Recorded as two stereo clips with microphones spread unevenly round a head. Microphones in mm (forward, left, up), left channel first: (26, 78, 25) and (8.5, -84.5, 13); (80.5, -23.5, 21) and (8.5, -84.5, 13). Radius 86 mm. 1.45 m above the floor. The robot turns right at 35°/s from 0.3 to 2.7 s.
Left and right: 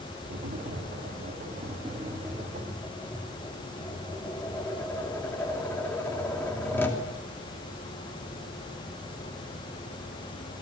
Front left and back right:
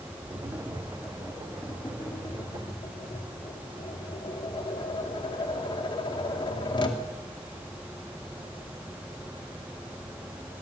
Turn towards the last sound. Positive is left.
turn(degrees=10)